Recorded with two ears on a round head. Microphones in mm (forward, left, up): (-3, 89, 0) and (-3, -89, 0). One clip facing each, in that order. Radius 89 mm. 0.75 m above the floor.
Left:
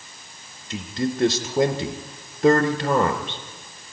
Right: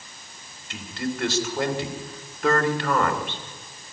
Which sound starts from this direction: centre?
A man speaking, at 0.7 s.